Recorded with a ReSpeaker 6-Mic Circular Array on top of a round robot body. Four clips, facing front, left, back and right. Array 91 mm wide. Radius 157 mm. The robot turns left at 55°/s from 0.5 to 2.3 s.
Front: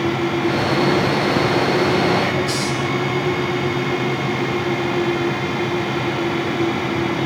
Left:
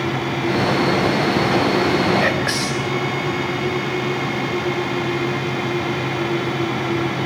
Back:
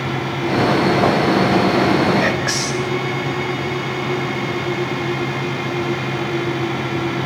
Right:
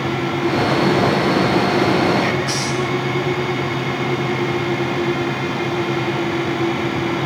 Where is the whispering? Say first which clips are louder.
Even, even; 135° left, 4.5 m; by 2.9 s 130° left, 4.5 m.